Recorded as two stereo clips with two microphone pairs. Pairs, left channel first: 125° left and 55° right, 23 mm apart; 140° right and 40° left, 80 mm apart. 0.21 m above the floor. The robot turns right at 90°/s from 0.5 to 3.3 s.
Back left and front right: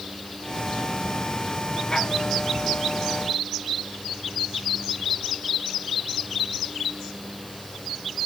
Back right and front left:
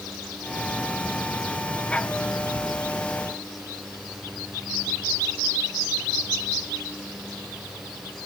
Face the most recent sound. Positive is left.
No sound to turn to.